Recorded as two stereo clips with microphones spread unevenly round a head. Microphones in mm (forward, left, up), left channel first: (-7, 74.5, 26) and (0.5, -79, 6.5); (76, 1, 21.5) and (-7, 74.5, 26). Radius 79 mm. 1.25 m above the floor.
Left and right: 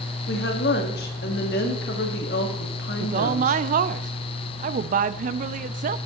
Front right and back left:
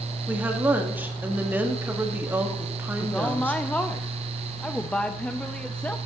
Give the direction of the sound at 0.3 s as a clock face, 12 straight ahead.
10 o'clock.